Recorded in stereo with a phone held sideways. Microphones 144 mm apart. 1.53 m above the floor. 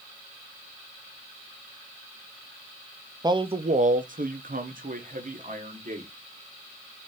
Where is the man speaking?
25° right (ahead or behind), 0.5 m; by 6.1 s 60° right (ahead or behind), 1.4 m.